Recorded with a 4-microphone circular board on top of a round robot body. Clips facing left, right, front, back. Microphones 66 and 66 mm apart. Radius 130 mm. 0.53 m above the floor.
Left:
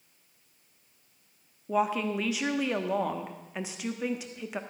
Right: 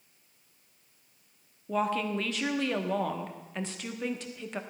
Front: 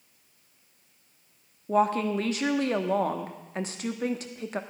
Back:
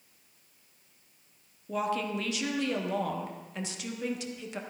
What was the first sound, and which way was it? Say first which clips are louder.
A woman speaking: left 2 dB, front 7 dB; 15° left.